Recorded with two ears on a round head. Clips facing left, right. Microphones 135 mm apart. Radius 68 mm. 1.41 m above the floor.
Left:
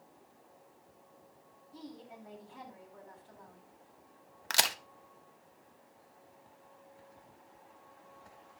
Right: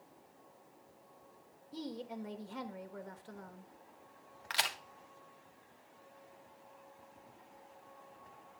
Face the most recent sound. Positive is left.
turn(degrees=55)  # may be behind; listen again after turning